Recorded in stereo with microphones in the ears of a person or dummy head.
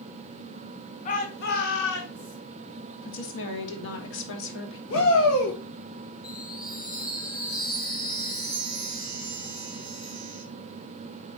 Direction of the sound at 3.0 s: 70° left (ahead or behind).